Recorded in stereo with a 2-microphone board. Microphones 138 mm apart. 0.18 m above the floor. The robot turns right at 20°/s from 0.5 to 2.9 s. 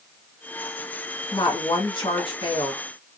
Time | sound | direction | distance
1.3 | a woman speaking | 30° left (ahead or behind) | 1.4 m